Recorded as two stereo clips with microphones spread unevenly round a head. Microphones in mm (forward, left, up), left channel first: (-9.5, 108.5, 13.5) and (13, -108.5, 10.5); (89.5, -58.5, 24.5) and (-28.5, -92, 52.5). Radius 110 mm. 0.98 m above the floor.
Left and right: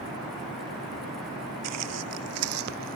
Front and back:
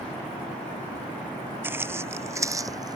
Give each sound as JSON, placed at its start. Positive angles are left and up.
{"t": 1.6, "sound": "footsteps", "azimuth_deg": -95}